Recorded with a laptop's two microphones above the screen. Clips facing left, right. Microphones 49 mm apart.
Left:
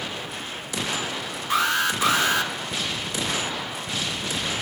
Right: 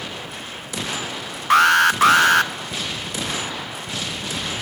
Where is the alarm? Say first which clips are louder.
Right 9 dB; 75° right (ahead or behind), 0.6 m.